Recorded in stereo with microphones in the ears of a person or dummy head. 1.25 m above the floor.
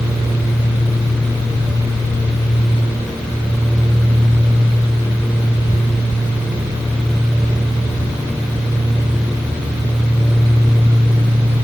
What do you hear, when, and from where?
Only background noise.